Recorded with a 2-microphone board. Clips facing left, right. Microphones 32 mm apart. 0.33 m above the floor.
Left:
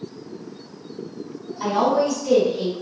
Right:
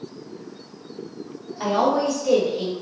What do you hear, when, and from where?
1.6 s a woman speaking: 40° right (ahead or behind), 1.2 m; by 2.8 s 10° right (ahead or behind), 1.0 m